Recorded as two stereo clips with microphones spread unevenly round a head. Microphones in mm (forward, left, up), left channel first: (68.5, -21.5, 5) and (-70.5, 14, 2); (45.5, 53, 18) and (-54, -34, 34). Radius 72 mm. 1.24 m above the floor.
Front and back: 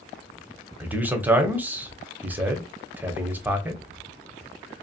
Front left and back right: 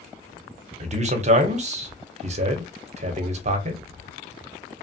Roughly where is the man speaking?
Behind right.